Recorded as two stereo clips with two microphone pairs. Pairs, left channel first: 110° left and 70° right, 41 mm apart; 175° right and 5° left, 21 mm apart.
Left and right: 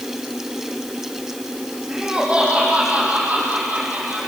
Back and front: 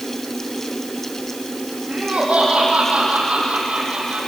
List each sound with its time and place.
1.9 s laughter: 5° right, 8.5 m; by 4.2 s 25° right, 7 m